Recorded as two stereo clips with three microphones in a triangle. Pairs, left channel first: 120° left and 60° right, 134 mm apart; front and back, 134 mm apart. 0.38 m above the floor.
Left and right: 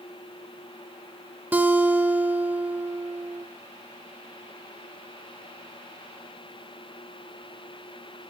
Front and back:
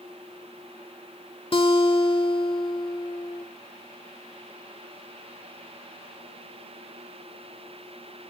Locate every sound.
1.5 s a guitar: 10° left, 0.9 m